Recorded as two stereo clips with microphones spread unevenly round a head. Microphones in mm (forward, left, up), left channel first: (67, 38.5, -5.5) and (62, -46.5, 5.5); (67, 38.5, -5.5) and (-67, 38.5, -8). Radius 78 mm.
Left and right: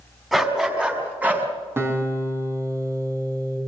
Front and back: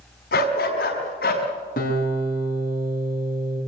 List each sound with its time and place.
0.3 s a dog barking: 10° right, 5.5 m; by 1.5 s 30° right, 5.5 m
1.8 s a guitar: 35° right, 5.5 m